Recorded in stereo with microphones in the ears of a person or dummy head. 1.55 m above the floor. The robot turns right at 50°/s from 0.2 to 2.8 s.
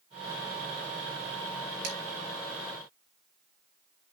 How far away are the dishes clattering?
About 2.5 m.